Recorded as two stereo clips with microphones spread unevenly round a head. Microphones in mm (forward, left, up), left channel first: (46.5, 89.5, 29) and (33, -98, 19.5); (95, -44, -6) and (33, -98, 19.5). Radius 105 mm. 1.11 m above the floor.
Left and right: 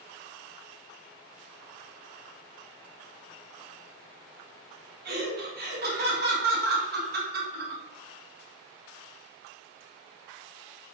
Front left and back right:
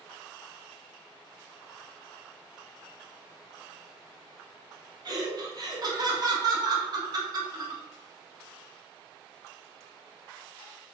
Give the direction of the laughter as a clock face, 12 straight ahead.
3 o'clock.